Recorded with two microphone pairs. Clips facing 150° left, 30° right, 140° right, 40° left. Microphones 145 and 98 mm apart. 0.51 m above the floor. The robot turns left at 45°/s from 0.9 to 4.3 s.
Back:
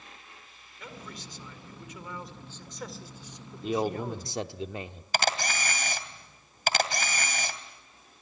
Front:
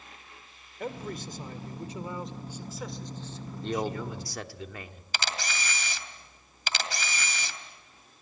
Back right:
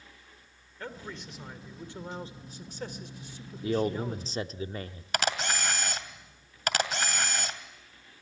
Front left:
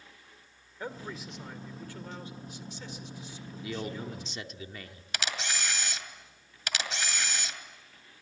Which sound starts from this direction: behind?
A camera shutter, at 5.1 s.